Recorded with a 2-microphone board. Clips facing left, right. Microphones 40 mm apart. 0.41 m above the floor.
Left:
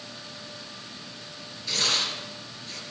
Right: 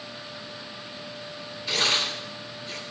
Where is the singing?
No singing in this recording.